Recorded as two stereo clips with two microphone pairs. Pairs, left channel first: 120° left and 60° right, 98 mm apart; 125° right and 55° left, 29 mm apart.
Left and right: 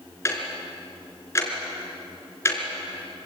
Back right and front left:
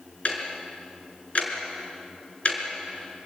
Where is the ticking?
175° right, 4.5 m.